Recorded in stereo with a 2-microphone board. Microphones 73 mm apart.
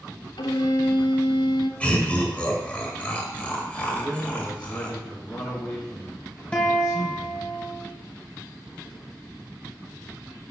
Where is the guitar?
15° left (ahead or behind), 1.2 m.